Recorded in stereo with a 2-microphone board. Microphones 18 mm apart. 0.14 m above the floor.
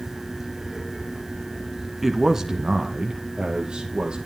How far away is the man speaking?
About 1.1 m.